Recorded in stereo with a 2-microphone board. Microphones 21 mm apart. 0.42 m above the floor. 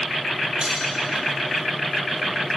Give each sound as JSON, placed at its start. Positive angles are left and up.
{"t": 0.6, "sound": "cutlery clinking", "side_deg": -45, "distance_m": 7.5}